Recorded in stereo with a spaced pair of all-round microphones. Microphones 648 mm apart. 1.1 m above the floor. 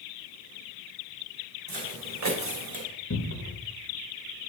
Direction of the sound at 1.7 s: 60° right (ahead or behind).